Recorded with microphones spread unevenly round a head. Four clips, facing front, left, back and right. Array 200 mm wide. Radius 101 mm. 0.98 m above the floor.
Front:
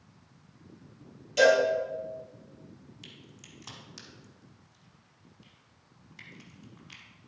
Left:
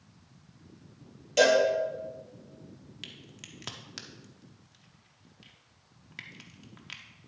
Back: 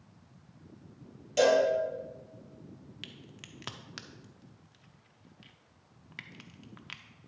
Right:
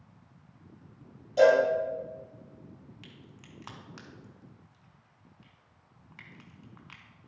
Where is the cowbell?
90° left, 4.5 m.